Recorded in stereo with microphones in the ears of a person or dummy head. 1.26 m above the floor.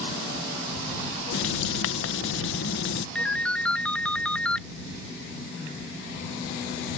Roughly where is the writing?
Left.